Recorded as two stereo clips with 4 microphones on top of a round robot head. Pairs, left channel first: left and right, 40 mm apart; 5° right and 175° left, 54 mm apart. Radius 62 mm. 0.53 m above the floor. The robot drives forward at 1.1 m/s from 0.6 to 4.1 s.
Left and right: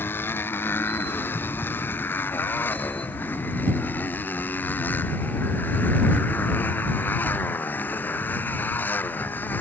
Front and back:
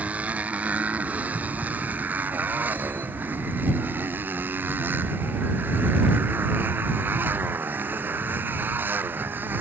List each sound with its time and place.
0.0 s a motorcycle: 115° left; by 9.6 s 125° left